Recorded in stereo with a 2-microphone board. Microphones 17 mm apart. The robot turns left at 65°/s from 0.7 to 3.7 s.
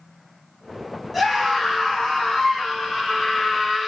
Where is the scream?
170° left, 2.5 m; by 3.9 s 5° left, 2.5 m.